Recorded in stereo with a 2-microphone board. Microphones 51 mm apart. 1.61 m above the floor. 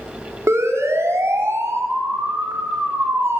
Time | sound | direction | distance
0.5 | a siren | 70° right (ahead or behind) | 4 m